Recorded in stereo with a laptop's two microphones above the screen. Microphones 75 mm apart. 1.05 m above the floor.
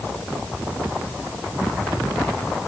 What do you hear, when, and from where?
Only background noise.